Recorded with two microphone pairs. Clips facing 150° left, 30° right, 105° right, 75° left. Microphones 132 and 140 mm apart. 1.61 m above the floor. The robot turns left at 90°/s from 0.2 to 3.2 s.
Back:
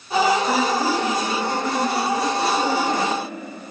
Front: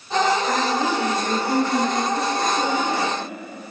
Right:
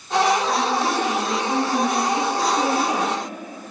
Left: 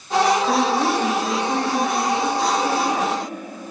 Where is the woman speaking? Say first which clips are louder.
Back 1 dB, left 3 dB; 80° left, 2.5 m; by 3.2 s 165° right, 2.5 m.